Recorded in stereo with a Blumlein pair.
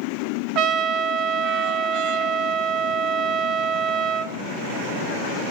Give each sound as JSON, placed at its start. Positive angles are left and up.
{"t": 0.6, "sound": "a trumpet", "azimuth_deg": -35, "distance_m": 0.7}